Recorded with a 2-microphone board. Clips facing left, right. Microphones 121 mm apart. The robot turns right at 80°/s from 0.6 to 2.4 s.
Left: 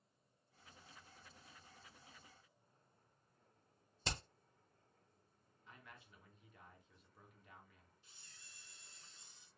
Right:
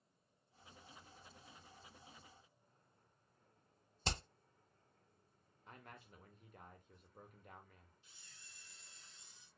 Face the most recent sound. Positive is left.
turn(degrees=35)  # may be behind; listen again after turning